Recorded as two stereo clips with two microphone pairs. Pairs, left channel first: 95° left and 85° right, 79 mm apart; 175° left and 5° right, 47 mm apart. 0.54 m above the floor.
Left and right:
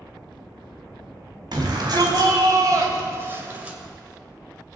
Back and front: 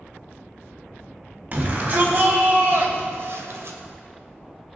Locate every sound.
1.5 s a shout: 60° right, 3.5 m; by 3.8 s 10° right, 2 m